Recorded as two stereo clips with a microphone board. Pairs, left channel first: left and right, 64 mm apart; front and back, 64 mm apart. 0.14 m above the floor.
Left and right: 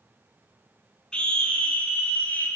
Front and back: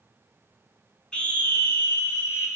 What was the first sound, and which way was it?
A scream, 45° left.